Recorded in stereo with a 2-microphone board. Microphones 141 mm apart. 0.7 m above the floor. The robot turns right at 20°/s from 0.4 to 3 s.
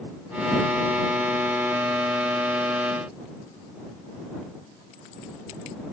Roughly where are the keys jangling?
No keys jangling in this recording.